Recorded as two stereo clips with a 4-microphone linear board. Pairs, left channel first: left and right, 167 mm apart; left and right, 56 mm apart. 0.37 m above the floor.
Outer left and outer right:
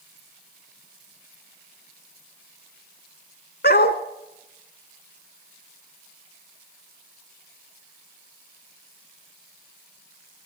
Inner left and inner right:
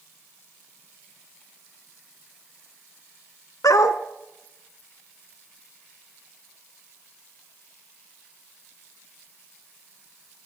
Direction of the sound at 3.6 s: 80° left.